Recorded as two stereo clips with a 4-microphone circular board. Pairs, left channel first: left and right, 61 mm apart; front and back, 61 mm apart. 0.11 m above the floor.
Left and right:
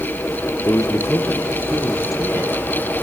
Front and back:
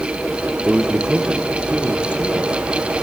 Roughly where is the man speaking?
Left.